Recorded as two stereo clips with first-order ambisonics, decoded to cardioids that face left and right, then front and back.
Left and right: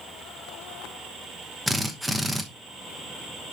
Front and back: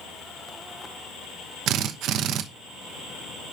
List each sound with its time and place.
1.7 s a drill: 175° right, 0.9 m